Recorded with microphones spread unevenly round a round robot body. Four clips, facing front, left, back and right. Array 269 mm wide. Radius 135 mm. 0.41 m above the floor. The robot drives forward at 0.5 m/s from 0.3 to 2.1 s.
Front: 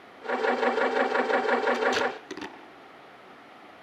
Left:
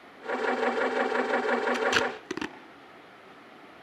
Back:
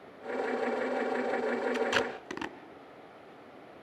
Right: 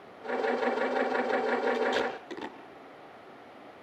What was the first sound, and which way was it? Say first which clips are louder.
Tape being pulled: left 1 dB, front 4 dB; 100° left.